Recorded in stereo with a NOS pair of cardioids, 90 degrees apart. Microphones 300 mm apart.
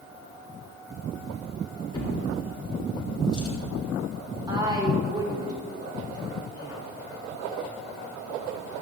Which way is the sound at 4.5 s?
15° right.